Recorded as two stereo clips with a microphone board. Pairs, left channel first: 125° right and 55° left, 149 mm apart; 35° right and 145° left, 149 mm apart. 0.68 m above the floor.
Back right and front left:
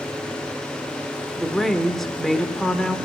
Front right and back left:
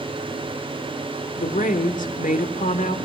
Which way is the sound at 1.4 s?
35° right.